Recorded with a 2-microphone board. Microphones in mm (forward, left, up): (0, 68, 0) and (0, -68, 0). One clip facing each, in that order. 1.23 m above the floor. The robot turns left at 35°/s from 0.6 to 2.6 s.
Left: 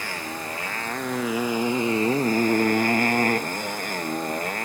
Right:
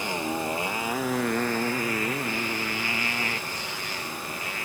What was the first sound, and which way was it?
A motorcycle, 160° right.